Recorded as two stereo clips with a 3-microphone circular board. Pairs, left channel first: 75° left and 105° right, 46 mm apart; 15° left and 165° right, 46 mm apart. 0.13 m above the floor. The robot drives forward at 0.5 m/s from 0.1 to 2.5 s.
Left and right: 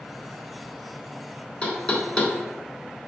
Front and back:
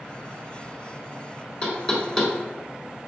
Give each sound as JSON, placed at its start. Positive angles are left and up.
{"t": 1.6, "sound": "knocking", "azimuth_deg": 40, "distance_m": 0.8}